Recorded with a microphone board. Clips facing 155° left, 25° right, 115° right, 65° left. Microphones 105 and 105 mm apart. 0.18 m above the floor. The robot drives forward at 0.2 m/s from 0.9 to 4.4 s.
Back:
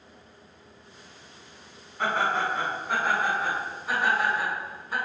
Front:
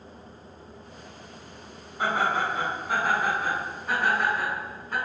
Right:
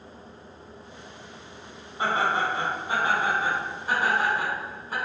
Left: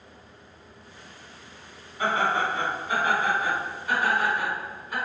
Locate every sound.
2.0 s laughter: 90° right, 1.2 m; by 5.0 s 125° right, 1.3 m